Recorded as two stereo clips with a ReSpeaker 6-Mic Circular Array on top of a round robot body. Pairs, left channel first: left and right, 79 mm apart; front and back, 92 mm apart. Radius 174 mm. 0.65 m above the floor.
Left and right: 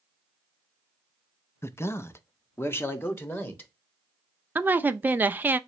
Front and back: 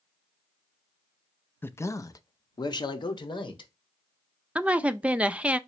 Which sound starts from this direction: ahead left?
A man speaking, at 1.6 s.